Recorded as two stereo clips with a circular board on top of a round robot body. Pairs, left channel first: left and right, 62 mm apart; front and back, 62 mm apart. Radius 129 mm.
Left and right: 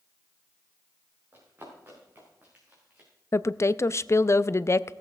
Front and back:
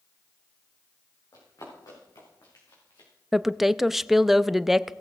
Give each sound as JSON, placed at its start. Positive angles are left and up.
{"t": 1.3, "sound": "running footsteps", "azimuth_deg": -35, "distance_m": 6.0}
{"t": 3.3, "sound": "a woman speaking", "azimuth_deg": 95, "distance_m": 0.6}